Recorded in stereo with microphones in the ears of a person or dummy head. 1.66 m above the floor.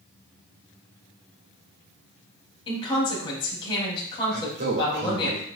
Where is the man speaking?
50° right (ahead or behind), 2 m.